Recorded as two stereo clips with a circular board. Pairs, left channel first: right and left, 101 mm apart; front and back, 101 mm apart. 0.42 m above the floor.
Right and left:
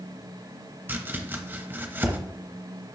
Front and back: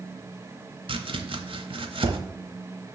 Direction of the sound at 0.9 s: 155° left.